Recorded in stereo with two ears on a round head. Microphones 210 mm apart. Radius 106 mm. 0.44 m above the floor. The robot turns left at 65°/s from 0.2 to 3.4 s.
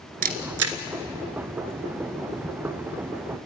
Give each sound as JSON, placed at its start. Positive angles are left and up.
{"t": 0.2, "sound": "a camera shutter", "side_deg": -35, "distance_m": 1.4}